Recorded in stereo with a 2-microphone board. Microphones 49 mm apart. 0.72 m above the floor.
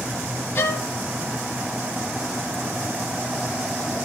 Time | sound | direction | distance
0.6 | a violin | 55° left (ahead or behind) | 1.4 m